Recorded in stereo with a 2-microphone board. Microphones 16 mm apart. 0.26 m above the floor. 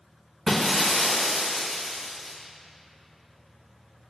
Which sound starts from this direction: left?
Breaking glass, at 0.5 s.